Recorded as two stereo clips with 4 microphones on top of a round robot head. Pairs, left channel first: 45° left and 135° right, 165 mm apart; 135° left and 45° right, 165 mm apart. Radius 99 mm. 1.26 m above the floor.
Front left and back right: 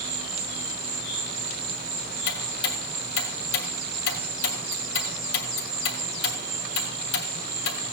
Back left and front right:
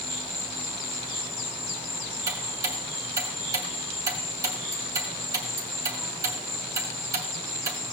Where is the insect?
170° right, 3 m.